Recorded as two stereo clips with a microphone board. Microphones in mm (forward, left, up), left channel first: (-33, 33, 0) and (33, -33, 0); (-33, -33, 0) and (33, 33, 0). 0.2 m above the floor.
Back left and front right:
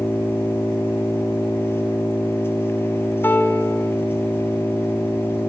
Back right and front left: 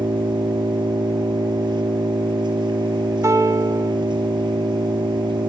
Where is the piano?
80° left, 1.1 m.